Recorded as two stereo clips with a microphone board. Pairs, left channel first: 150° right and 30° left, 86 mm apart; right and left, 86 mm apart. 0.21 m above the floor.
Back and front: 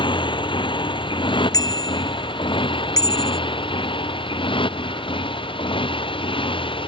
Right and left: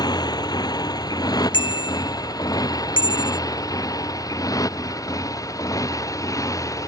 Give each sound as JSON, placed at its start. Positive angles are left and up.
{"t": 0.0, "sound": "a motorcycle", "azimuth_deg": -130}
{"t": 1.5, "sound": "a bicycle bell", "azimuth_deg": -110}